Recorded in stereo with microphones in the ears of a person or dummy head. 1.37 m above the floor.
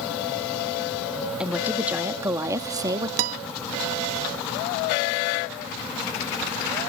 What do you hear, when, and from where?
1.4 s a woman speaking: 5° right (ahead or behind); by 3.1 s 20° right (ahead or behind)
3.2 s a guitar: 60° right (ahead or behind)